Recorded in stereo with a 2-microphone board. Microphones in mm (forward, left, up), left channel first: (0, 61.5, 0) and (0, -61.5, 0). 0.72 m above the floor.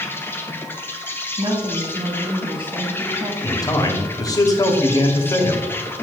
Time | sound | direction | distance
0.0 | an insect | 15° left (ahead or behind) | 0.9 m
1.4 | a woman speaking | 45° right (ahead or behind) | 1.3 m
3.4 | a man speaking | 30° left (ahead or behind) | 1.3 m